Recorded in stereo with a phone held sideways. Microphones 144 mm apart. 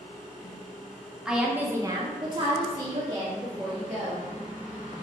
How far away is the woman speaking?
About 0.8 m.